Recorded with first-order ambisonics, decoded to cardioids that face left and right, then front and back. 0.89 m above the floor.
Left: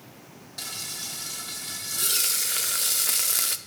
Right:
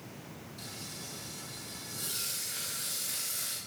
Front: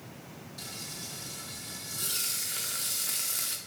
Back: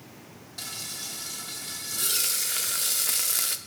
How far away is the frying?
About 0.6 m.